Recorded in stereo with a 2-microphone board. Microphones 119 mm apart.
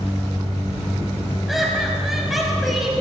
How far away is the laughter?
About 6 m.